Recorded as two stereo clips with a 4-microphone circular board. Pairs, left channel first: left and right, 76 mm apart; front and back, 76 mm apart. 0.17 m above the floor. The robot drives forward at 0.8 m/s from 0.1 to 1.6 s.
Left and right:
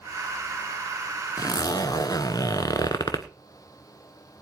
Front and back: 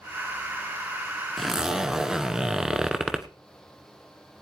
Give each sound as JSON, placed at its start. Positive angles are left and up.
{"t": 1.4, "sound": "a zipper", "azimuth_deg": 85, "distance_m": 1.1}